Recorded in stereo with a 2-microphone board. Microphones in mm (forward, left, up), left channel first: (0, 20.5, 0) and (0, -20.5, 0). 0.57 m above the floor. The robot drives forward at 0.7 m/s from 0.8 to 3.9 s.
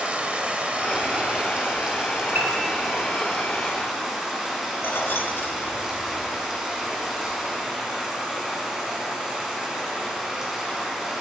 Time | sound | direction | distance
0.0 | running water | 30° right (ahead or behind) | 1.7 m
2.4 | a piano | 45° right (ahead or behind) | 2.5 m
4.8 | keys jangling | 60° left (ahead or behind) | 1.7 m